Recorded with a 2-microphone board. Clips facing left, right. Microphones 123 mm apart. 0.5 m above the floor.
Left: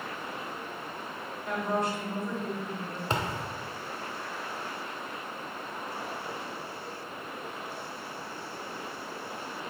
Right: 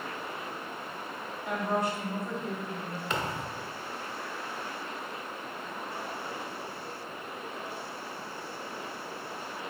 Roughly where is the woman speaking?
Centre.